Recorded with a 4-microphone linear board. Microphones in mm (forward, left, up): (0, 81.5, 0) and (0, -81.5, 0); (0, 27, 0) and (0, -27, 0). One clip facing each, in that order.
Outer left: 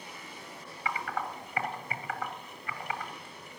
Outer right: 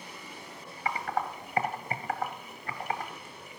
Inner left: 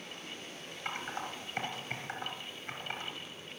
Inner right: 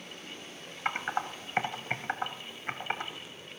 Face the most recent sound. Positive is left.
turn(degrees=-40)  # may be behind; listen again after turning